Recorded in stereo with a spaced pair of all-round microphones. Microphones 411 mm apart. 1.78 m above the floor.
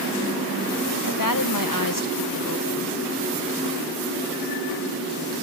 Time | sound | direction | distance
1.1 | a woman speaking | 50° left (ahead or behind) | 1.2 m